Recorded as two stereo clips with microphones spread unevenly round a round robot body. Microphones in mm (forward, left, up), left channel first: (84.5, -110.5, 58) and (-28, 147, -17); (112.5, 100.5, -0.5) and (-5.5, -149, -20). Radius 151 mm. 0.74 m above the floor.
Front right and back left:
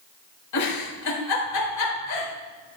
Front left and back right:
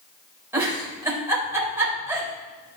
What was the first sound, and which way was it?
A giggle, 35° right.